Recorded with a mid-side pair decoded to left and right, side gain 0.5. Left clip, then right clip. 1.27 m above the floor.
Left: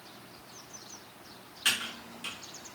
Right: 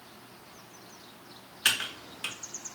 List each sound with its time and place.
1.6 s typing on a keyboard: 60° right, 0.8 m